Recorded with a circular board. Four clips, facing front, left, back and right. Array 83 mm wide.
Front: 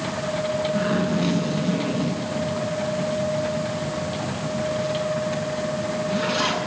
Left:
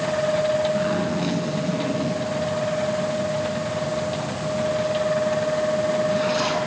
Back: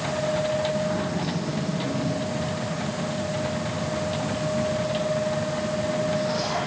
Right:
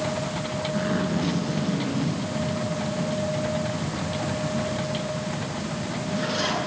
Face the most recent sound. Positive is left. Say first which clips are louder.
# left 3 dB, front 4 dB
turn(degrees=35)